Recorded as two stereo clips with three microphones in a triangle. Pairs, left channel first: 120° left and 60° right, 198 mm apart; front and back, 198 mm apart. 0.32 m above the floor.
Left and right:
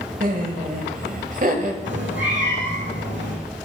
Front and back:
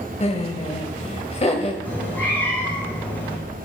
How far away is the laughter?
About 1.4 m.